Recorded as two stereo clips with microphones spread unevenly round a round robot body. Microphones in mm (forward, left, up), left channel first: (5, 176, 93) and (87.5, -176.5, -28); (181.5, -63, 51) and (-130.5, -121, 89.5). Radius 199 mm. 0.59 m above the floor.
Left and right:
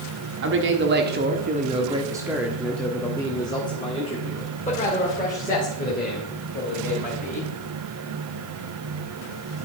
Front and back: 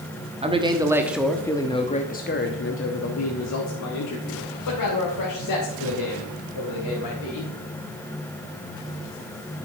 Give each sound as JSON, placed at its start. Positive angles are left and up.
{"t": 0.4, "sound": "a man speaking", "azimuth_deg": -95, "distance_m": 1.4}